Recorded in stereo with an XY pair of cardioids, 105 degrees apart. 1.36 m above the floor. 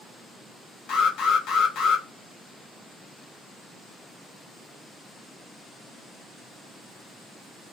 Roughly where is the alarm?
Left.